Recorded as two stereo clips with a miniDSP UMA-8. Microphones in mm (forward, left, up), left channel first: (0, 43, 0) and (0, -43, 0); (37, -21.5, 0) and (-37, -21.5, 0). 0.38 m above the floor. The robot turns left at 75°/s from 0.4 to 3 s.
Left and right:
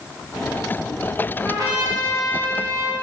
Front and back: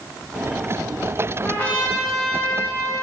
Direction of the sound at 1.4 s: 45° right.